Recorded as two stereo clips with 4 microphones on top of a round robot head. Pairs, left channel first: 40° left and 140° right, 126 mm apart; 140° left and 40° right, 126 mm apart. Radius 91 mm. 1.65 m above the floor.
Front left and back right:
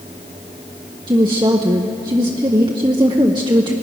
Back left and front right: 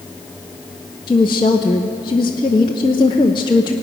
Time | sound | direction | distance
1.1 | a woman speaking | 175° left | 0.6 m